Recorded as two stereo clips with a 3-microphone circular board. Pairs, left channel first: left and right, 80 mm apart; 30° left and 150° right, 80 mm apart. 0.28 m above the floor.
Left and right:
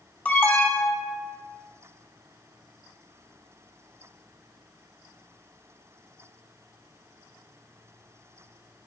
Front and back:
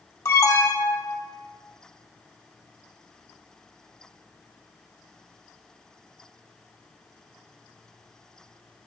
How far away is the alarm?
About 0.9 m.